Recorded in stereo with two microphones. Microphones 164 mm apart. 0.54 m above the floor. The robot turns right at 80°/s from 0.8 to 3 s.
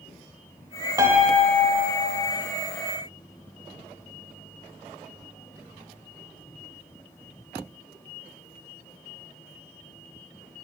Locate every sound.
1.0 s a piano: 25° right, 0.7 m; by 2.2 s 80° left, 0.7 m